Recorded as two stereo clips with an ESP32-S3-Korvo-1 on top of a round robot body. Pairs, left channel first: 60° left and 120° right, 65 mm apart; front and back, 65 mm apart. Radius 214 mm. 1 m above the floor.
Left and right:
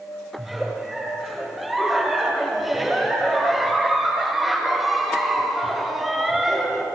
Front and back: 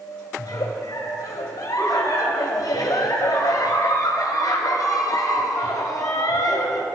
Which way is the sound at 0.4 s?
35° right.